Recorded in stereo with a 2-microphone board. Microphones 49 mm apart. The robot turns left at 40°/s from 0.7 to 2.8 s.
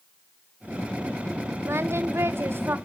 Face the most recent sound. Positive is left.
turn(degrees=-125)